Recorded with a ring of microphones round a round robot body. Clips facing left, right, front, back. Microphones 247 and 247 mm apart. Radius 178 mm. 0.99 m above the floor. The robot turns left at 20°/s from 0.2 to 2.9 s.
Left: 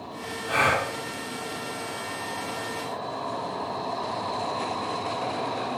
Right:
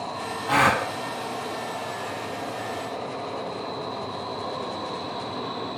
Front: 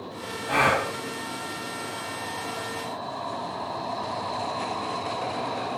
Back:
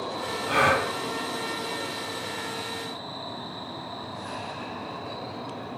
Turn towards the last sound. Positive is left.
turn(degrees=-130)